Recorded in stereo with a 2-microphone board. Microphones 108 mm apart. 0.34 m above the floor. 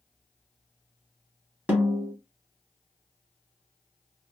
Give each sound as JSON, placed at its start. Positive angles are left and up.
{"t": 1.7, "sound": "a snare drum", "side_deg": -15, "distance_m": 1.9}